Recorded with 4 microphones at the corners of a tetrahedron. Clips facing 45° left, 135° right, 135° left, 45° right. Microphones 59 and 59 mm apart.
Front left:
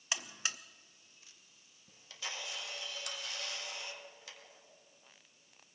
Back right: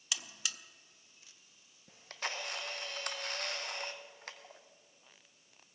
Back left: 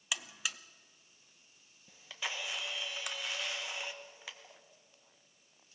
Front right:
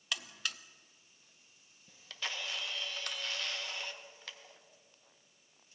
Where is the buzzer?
60° left, 0.5 m.